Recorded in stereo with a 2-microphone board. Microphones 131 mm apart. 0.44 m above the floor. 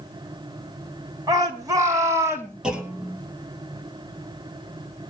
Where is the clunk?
5° right (ahead or behind), 2.5 m.